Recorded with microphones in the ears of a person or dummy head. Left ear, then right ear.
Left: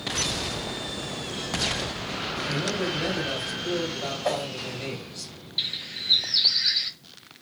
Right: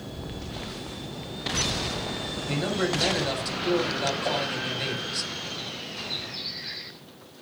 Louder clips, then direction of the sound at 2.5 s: Right 3 dB; 45° right (ahead or behind).